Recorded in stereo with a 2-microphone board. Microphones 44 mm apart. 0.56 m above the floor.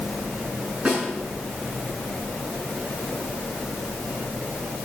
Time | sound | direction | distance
0.8 | a snare drum | 30° right (ahead or behind) | 7 m